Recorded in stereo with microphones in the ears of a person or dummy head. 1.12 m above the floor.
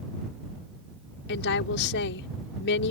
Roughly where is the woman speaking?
Left.